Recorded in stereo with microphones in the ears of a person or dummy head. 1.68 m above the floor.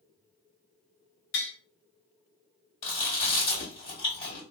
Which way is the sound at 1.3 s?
55° left (ahead or behind).